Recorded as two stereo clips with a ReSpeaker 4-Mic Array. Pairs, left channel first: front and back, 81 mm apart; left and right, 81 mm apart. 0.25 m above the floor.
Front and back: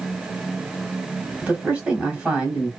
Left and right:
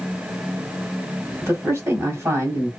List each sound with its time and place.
1.4 s a man speaking: 115° right, 1.5 m